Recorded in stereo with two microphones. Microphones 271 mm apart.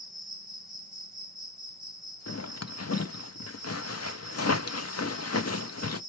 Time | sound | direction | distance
0.0 | an insect | centre (ahead or behind) | 0.9 m
2.3 | a zipper | 65° left (ahead or behind) | 0.5 m